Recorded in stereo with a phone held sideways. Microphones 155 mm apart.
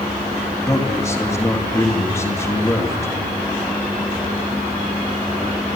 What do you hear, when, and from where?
0.7 s a man speaking: 20° left (ahead or behind), 2 m